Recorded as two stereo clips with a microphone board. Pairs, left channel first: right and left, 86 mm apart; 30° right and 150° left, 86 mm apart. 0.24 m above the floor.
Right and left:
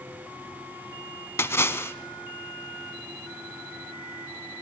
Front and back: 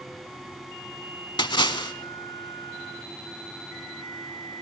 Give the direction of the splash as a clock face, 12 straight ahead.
1 o'clock.